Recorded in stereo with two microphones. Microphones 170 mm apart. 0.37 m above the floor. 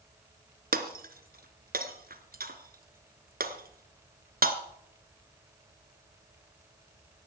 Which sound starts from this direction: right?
Breaking glass, at 0.7 s.